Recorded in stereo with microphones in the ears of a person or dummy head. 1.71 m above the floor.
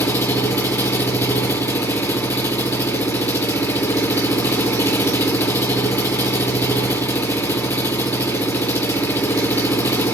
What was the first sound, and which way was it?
An engine running, 20° left (ahead or behind).